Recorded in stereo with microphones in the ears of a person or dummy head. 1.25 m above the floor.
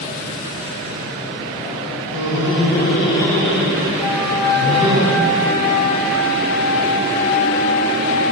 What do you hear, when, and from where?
2.1 s laughter: 80° left, 1.2 m; by 5.0 s 30° right (ahead or behind), 2.5 m
4.0 s a flute: 10° left (ahead or behind), 0.6 m